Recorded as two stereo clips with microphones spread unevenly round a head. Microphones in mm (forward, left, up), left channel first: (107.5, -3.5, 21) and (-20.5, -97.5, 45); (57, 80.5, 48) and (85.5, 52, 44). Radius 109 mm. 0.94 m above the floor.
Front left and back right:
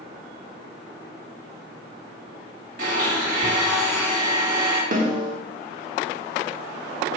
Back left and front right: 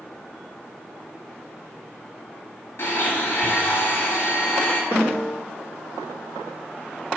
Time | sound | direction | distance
2.8 | a blender | 165° left | 1.4 m
4.9 | a snare drum | 105° right | 1.2 m